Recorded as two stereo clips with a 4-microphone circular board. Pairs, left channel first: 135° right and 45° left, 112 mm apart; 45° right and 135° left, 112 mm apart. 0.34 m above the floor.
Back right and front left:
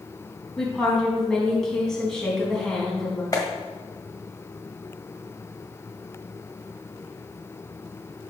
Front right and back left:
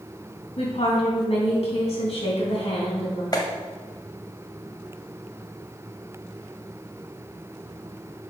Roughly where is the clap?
Right.